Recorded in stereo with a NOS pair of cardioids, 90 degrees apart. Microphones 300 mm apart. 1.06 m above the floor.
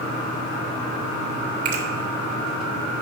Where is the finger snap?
65° right, 2.5 m.